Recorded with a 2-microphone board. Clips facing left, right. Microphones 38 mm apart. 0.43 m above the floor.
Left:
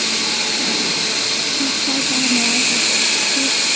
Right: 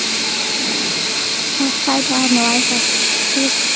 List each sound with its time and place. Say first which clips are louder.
1.6 s a woman speaking: right 7 dB; 60° right (ahead or behind)